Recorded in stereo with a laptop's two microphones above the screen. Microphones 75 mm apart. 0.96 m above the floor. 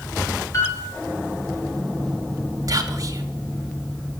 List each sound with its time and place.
0.5 s a piano: 40° left (ahead or behind), 6 m
2.7 s whispering: 45° right (ahead or behind), 2 m